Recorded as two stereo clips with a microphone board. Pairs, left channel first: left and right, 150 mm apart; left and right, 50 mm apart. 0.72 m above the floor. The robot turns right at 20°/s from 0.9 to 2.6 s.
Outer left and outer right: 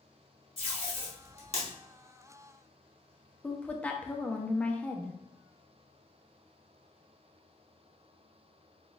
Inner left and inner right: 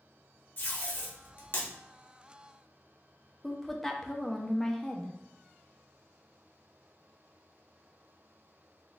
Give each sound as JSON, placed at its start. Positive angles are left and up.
{"t": 0.6, "sound": "tape being pulled", "side_deg": 40, "distance_m": 1.2}
{"t": 3.4, "sound": "a woman speaking", "side_deg": 10, "distance_m": 0.5}